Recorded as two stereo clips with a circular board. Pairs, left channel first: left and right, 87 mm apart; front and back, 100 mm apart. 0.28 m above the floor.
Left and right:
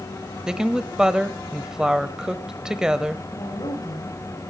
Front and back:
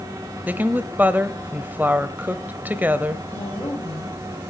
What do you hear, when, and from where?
0.5 s a woman speaking: 155° right, 1.0 m
3.3 s a woman speaking: 50° left, 8.5 m